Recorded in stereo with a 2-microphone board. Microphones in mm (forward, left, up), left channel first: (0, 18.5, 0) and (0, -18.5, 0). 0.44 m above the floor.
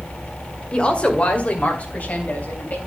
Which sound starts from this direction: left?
A woman speaking, at 0.7 s.